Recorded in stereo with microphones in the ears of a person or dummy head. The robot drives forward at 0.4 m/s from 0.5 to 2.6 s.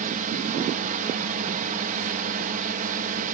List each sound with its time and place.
0.0 s a drone: 45° right (ahead or behind)